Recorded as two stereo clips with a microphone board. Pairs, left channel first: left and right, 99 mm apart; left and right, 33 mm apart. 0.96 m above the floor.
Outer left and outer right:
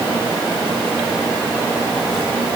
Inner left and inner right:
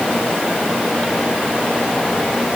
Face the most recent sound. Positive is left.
No sound to turn to.